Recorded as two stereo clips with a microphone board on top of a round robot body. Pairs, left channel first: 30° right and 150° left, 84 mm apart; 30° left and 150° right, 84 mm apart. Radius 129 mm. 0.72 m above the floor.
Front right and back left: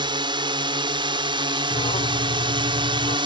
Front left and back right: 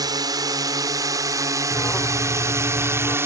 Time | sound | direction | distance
0.0 | a drone | 170° left | ?
1.7 | an alarm | 40° right | ?